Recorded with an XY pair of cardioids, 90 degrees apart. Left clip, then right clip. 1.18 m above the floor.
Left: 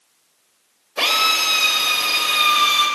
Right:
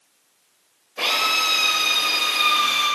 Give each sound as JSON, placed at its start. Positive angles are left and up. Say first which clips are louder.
{"t": 1.0, "sound": "a drill", "louder": "left 3 dB", "azimuth_deg": 65, "distance_m": 3.0}